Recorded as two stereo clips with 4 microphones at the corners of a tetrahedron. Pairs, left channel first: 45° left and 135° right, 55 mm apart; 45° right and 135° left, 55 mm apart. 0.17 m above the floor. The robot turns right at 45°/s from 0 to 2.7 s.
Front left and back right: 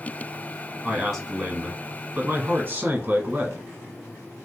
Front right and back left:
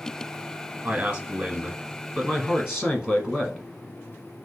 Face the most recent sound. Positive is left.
turn(degrees=-150)